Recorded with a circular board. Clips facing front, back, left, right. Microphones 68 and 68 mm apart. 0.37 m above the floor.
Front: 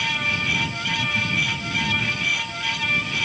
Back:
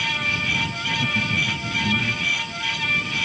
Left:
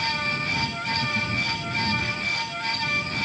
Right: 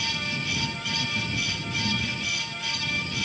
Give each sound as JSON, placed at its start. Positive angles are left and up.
{"t": 0.9, "sound": "laughter", "azimuth_deg": 175}